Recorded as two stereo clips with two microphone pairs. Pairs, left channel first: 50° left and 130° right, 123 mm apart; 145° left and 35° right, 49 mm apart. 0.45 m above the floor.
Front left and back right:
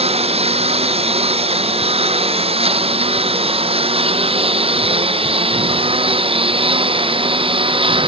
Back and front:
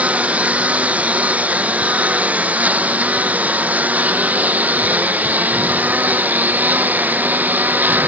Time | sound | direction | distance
0.0 | a lawn mower | 95° right | ?